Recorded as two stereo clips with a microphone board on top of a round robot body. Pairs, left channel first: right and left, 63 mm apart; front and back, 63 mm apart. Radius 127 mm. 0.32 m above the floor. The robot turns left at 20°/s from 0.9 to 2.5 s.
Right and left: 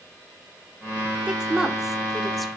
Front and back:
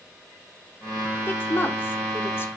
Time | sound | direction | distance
1.3 | a woman speaking | 20° left | 1.2 m